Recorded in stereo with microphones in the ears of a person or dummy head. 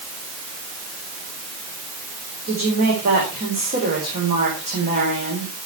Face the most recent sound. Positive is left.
turn(degrees=-45)  # may be behind; listen again after turning